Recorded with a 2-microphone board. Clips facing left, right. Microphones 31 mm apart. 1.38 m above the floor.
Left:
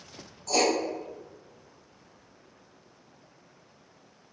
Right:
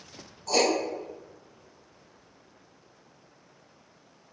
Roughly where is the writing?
Centre.